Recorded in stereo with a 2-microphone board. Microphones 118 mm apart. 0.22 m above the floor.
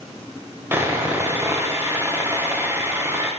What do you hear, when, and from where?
0.7 s sawing: 20° right (ahead or behind), 7 m